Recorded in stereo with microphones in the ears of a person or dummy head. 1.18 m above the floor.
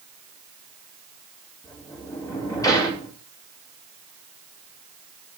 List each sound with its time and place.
1.6 s a sliding door: 20° left (ahead or behind), 4 m